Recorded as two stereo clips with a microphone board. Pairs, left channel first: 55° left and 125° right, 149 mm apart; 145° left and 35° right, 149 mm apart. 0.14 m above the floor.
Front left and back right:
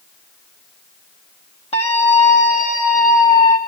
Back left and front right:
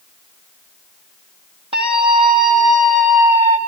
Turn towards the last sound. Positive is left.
turn(degrees=40)